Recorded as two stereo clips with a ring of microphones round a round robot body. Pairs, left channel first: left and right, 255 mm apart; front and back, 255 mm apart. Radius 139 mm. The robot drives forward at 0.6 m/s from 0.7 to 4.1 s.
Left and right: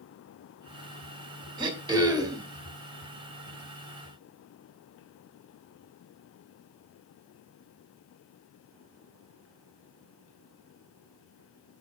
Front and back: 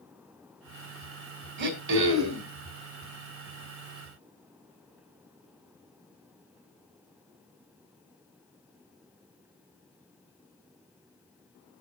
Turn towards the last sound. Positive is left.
turn(degrees=-170)